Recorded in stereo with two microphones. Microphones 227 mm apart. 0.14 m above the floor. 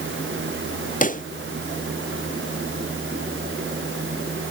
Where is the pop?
35° left (ahead or behind).